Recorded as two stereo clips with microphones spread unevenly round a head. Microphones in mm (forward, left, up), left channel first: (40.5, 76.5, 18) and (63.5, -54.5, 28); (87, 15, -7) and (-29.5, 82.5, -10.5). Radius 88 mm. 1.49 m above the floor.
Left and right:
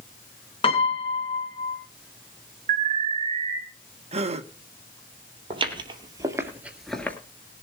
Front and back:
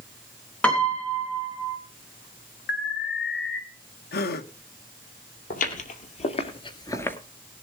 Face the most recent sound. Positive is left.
turn(degrees=30)